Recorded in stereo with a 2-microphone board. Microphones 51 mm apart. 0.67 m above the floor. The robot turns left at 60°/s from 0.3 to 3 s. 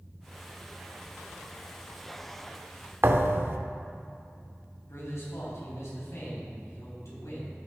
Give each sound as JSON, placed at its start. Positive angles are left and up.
{"t": 3.0, "sound": "a thud", "side_deg": -50, "distance_m": 0.7}
{"t": 4.9, "sound": "a man speaking", "side_deg": 75, "distance_m": 3.5}